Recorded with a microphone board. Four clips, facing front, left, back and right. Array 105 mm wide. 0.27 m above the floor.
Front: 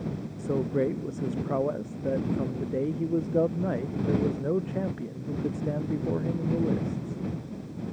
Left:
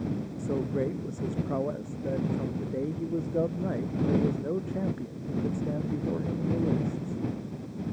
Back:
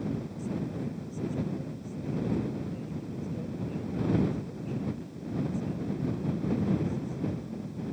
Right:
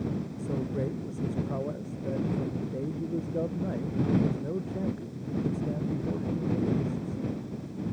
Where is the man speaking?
15° left.